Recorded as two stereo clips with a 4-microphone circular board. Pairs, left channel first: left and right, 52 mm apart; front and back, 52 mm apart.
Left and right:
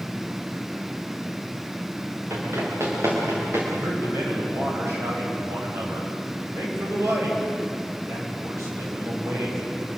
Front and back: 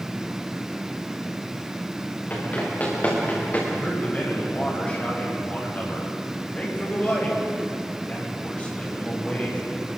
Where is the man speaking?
60° right, 9.5 m.